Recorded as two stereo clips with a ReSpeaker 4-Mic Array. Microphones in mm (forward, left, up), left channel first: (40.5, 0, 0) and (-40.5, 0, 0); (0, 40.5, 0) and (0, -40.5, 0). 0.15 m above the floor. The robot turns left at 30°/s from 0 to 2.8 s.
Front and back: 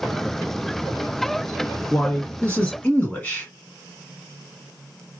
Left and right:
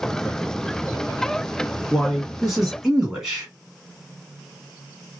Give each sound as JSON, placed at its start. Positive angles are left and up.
{"t": 1.9, "sound": "a man speaking", "azimuth_deg": 5, "distance_m": 1.4}